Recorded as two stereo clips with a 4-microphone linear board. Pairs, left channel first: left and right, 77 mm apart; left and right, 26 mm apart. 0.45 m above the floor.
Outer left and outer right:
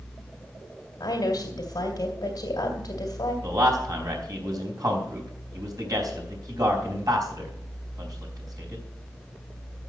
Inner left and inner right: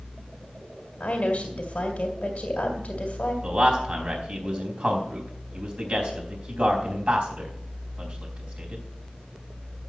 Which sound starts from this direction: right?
A man speaking, at 3.4 s.